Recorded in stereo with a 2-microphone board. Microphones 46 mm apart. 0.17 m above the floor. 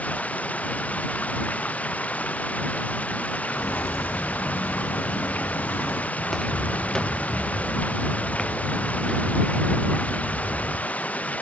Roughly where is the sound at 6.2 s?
Centre.